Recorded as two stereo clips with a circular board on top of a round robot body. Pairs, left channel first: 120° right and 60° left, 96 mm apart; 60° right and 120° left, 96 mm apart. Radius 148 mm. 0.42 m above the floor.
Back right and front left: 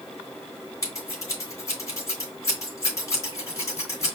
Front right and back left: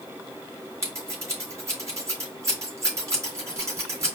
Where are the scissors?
Straight behind, 3 m.